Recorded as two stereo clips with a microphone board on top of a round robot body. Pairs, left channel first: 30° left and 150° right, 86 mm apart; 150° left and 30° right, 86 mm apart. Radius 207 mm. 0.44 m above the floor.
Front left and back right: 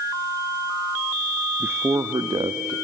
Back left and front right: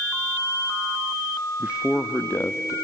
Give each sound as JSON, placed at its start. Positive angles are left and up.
{"t": 1.6, "sound": "a man speaking", "azimuth_deg": -90, "distance_m": 1.1}